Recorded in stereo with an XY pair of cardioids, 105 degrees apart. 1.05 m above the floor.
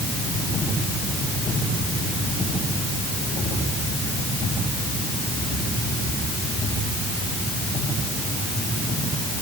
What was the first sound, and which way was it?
Only background noise.